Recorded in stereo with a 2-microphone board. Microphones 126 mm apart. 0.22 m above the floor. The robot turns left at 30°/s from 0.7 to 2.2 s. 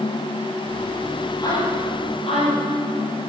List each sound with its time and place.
1.4 s a woman speaking: 30° left (ahead or behind), 6.5 m; by 3.3 s 55° left (ahead or behind), 6.5 m